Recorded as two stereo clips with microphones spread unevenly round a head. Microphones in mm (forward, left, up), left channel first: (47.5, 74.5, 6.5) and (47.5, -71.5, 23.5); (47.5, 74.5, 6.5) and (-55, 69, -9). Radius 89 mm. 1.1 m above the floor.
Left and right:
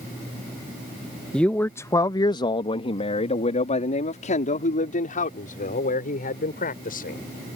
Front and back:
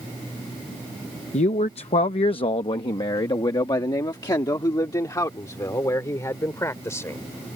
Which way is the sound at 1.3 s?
5° left.